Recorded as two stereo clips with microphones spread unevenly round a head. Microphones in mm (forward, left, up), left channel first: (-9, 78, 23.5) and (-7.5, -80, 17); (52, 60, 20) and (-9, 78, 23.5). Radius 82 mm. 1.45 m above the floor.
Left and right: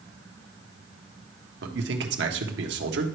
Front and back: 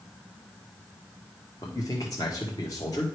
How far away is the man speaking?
About 1.2 m.